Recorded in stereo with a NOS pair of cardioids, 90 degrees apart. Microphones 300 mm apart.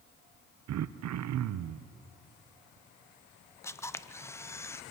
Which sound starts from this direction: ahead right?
Throat clearing, at 0.7 s.